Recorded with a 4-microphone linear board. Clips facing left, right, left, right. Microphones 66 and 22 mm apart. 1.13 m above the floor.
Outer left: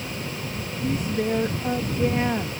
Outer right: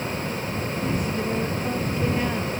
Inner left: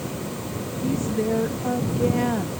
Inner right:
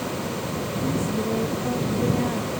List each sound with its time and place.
0.8 s a woman speaking: 30° left (ahead or behind)